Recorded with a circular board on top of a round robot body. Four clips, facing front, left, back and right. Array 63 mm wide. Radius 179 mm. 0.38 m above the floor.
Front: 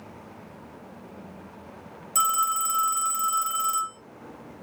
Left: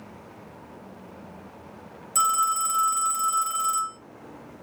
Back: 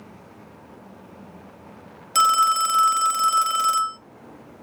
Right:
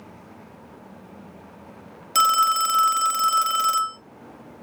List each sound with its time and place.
2.1 s a phone ringing: 135° right, 0.6 m